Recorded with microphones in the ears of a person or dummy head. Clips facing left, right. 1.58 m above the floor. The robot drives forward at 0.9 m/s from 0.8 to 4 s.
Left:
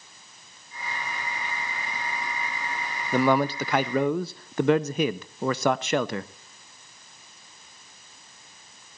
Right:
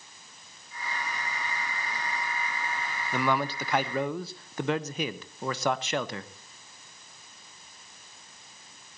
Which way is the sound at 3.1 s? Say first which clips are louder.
Left 7 dB; 40° left (ahead or behind).